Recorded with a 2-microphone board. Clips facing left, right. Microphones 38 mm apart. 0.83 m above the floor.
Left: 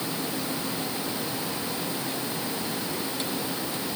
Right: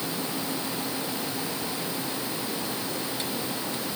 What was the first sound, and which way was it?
Only background noise.